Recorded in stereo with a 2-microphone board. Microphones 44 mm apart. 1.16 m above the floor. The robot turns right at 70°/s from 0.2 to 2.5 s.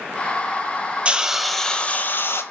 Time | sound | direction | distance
1.1 | a hiss | 30° right | 1.2 m